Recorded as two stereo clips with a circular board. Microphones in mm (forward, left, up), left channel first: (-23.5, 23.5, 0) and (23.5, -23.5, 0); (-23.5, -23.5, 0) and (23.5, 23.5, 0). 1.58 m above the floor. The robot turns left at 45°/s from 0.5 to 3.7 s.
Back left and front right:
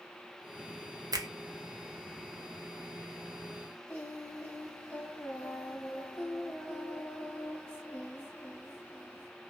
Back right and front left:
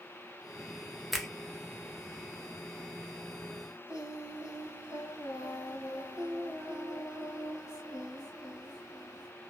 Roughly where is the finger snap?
Ahead right.